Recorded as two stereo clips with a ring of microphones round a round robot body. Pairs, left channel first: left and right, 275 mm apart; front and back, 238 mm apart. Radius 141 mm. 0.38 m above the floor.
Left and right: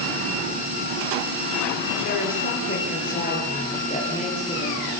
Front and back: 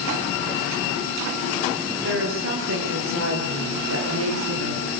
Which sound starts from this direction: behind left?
A woman speaking, at 2.0 s.